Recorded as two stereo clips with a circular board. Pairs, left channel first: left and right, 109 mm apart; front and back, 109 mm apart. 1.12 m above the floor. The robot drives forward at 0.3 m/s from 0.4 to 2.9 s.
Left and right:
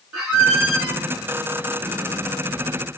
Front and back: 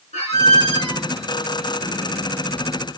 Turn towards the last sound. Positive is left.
turn(degrees=-15)